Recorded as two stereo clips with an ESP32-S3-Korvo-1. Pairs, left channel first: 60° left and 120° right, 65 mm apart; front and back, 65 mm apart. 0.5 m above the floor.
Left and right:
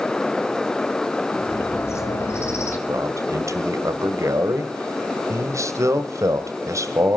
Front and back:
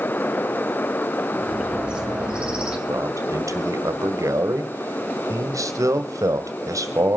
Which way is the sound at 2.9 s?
150° right.